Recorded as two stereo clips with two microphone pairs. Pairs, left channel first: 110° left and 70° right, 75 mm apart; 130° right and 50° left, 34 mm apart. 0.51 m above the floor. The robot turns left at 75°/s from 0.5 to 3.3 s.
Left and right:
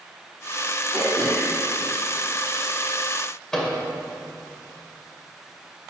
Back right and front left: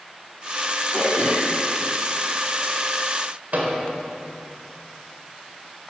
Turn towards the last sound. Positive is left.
turn(degrees=30)